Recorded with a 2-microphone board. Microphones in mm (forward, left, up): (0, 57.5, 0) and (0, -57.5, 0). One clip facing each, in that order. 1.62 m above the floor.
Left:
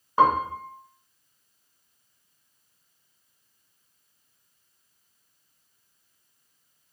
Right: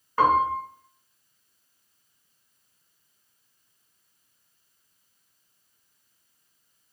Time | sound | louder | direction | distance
0.2 | a piano | even | 20° left (ahead or behind) | 0.7 m